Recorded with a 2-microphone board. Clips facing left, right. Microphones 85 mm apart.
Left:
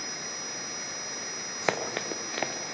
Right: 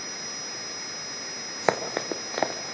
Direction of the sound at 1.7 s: 20° right (ahead or behind).